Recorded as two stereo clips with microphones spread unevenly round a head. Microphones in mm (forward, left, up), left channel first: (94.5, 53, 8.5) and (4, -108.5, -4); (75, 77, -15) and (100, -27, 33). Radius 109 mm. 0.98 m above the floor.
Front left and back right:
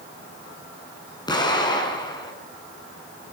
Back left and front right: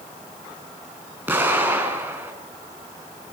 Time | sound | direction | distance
1.3 | an explosion | 5° right | 7 m